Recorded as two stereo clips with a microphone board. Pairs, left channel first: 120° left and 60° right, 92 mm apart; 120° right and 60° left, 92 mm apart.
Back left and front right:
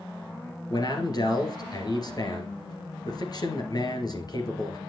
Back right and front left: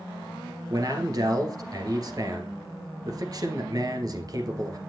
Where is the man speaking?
95° left, 2 m.